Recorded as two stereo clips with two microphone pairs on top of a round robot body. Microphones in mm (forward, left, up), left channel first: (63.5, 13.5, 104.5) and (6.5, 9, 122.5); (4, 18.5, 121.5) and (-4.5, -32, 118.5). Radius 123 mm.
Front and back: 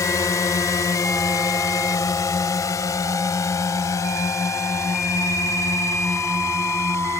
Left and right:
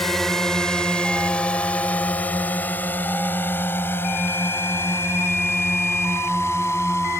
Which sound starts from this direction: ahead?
A drone, at 0.0 s.